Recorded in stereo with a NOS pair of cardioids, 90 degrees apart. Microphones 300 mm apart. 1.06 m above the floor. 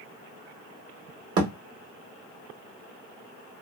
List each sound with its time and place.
1.4 s a thud: 55° right, 1.4 m